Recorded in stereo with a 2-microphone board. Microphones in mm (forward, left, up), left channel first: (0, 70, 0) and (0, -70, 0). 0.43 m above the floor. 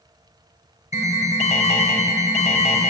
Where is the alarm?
55° left (ahead or behind), 1.5 m.